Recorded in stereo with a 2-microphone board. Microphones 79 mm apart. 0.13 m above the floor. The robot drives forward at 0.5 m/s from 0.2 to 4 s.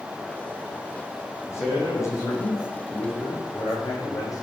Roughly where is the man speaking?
Left.